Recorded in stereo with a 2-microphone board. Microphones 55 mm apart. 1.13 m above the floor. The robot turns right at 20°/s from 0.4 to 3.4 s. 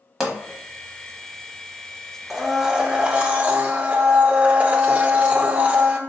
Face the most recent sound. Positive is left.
turn(degrees=-25)  # may be behind; listen again after turning